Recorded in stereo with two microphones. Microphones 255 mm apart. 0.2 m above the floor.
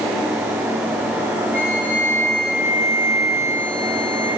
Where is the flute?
55° right (ahead or behind), 4.5 m.